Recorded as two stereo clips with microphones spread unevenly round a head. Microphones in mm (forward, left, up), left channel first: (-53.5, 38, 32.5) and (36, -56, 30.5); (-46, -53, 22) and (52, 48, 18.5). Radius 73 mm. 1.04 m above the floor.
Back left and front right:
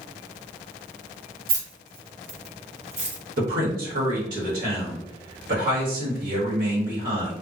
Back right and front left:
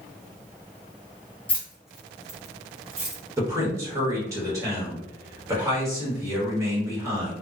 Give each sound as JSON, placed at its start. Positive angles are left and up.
{"t": 1.5, "sound": "keys jangling", "azimuth_deg": -55, "distance_m": 0.9}
{"t": 3.4, "sound": "a man speaking", "azimuth_deg": -25, "distance_m": 1.4}